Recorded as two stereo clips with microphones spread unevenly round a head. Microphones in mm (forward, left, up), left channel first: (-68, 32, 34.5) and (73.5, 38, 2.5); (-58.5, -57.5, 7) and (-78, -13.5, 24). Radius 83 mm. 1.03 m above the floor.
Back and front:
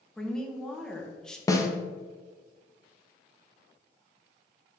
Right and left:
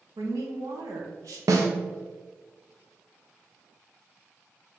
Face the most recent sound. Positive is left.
turn(degrees=110)